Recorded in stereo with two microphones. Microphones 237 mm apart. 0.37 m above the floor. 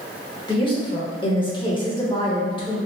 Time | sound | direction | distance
0.5 | a woman speaking | 20° left (ahead or behind) | 0.8 m